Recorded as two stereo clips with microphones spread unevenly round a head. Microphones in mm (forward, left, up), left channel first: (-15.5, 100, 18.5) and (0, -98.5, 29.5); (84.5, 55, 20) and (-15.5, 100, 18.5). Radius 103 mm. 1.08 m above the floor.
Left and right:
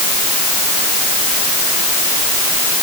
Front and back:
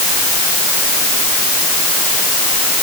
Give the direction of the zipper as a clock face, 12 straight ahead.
I don't hear a zipper.